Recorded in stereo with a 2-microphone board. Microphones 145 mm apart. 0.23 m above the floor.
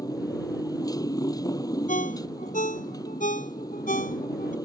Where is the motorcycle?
25° left (ahead or behind).